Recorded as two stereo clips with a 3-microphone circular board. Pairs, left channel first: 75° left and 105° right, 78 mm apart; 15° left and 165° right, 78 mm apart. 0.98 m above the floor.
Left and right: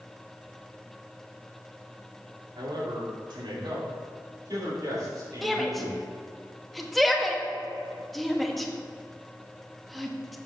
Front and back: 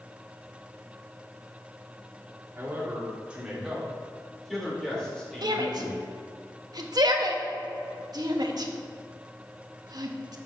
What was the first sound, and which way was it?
A man speaking, 105° right.